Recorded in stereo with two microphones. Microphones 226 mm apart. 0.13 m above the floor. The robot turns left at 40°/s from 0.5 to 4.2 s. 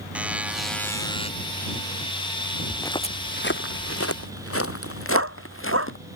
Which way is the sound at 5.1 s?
80° right.